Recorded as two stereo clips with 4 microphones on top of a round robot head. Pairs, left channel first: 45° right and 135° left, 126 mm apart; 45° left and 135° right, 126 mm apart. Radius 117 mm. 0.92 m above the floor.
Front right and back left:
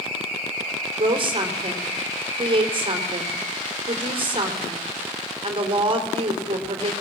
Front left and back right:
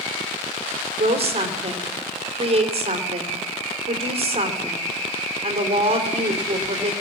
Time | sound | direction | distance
1.0 | a woman speaking | 175° right | 3 m